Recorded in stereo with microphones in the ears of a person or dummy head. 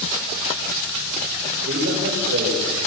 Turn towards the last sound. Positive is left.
turn(degrees=-65)  # may be behind; listen again after turning